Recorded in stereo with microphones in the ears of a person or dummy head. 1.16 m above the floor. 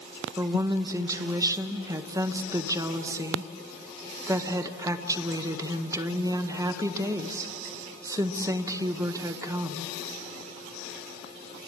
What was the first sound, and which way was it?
A woman speaking, 15° right (ahead or behind).